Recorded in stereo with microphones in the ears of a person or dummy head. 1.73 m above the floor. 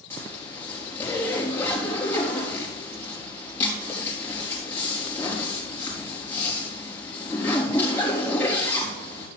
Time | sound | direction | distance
0.1 | a zipper | 15° left (ahead or behind) | 4 m